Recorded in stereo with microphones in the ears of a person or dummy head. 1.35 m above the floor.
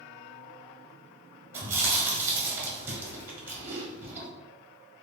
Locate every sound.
1.5 s chewing: 10° right (ahead or behind), 0.8 m